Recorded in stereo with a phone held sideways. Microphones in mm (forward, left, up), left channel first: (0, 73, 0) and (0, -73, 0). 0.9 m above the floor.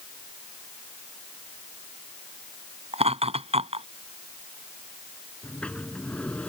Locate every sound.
2.9 s laughter: 45° right (ahead or behind)
5.4 s a sliding door: 10° left (ahead or behind)